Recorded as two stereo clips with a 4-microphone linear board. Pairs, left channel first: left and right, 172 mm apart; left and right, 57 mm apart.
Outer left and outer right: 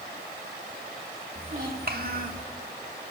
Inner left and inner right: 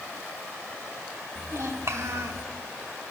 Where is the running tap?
I don't hear a running tap.